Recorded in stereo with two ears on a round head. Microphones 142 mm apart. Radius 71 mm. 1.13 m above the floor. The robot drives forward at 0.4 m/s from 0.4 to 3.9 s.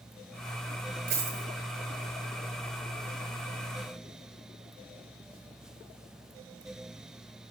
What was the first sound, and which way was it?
A dropped coin, 65° right (ahead or behind).